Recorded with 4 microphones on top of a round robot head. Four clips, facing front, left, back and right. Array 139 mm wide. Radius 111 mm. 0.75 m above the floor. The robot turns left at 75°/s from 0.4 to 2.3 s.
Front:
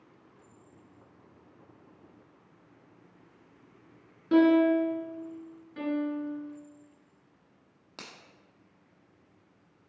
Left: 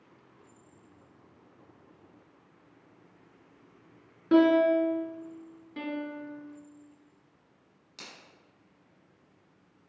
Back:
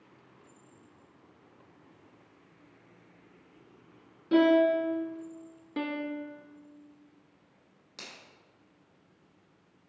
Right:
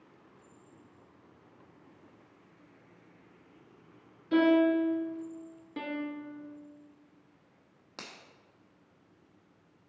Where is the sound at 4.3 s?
80° left, 1.4 m.